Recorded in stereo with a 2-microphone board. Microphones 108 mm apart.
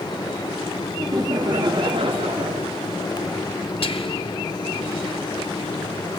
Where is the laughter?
30° right (ahead or behind), 2.0 m; by 2.7 s 70° right (ahead or behind), 1.4 m.